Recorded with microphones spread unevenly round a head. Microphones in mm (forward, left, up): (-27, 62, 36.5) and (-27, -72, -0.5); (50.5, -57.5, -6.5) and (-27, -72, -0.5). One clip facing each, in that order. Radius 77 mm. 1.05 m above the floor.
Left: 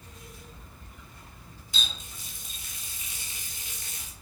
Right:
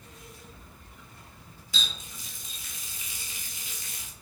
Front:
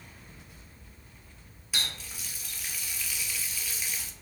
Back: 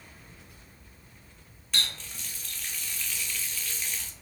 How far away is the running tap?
About 0.8 m.